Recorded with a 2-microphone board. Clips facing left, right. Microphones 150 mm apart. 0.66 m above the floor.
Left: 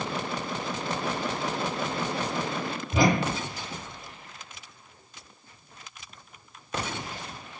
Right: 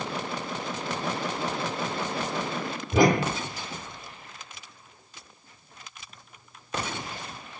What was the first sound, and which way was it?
A whoosh, 50° right (ahead or behind).